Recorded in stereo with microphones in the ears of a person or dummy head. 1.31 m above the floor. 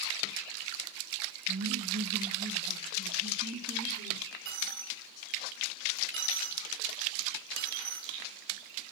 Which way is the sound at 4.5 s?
60° right (ahead or behind).